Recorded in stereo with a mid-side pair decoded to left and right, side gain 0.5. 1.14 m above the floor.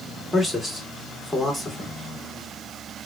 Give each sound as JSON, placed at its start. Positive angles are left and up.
{"t": 0.3, "sound": "a man speaking", "azimuth_deg": 10, "distance_m": 2.0}